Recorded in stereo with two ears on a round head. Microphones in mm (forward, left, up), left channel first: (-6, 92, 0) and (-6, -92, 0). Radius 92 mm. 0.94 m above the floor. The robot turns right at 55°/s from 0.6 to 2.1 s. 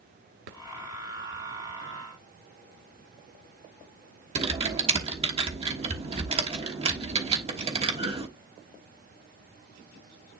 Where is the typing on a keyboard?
30° right (ahead or behind), 1.3 m.